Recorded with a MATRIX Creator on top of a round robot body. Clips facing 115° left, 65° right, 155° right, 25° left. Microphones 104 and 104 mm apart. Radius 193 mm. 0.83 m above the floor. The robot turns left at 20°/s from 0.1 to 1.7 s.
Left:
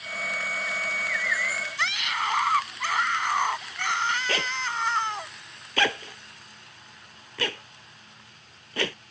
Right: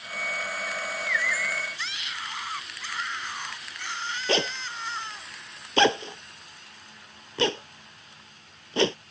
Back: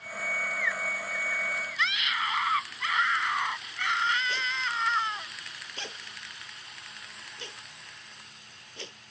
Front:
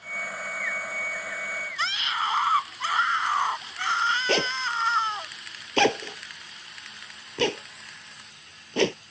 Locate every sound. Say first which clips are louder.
1.8 s a scream: left 8 dB, front 3 dB; 80° left
4.3 s a zipper: right 2 dB, front 6 dB; straight ahead